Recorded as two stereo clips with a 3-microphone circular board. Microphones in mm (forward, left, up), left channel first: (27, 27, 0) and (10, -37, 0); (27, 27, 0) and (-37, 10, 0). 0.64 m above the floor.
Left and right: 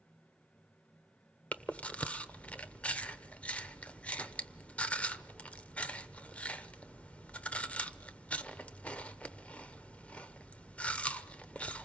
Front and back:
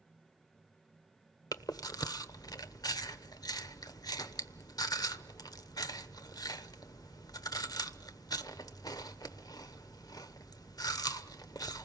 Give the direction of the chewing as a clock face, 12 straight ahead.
12 o'clock.